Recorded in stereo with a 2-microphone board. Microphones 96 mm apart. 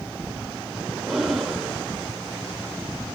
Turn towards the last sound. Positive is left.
turn(degrees=-5)  # may be behind; listen again after turning